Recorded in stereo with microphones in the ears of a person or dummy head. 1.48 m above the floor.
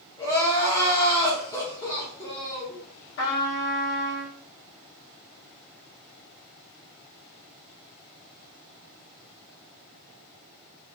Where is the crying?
20° left (ahead or behind), 1.2 m.